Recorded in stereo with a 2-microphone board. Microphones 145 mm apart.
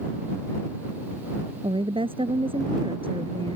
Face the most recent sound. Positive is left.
turn(degrees=-40)  # may be behind; listen again after turning